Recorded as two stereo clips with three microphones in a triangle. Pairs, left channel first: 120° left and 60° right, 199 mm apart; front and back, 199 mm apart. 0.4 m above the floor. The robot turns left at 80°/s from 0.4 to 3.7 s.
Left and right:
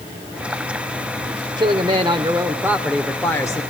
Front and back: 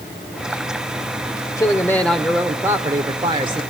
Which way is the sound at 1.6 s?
35° right.